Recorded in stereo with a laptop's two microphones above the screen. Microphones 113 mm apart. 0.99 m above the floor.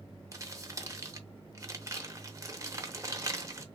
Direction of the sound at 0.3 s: 30° right (ahead or behind).